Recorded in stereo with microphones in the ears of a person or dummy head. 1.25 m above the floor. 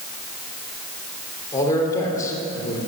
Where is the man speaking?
20° left (ahead or behind), 3 m.